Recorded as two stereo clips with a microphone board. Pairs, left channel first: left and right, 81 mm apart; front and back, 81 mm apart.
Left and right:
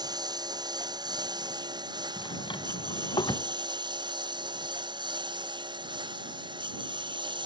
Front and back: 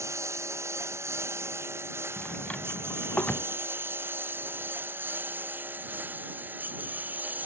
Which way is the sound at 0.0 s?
125° right.